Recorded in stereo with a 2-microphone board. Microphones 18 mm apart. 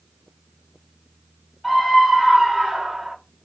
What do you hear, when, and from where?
1.6 s a scream: centre (ahead or behind), 2.0 m; by 3.1 s 35° right (ahead or behind), 2 m